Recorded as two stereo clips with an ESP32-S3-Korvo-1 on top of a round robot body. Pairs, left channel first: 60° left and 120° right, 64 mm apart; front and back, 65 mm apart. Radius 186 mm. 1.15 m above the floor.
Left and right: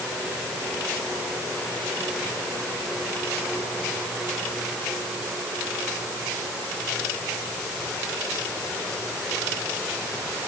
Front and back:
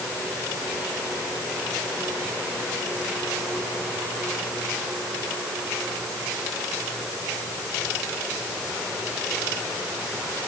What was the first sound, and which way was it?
Only background noise.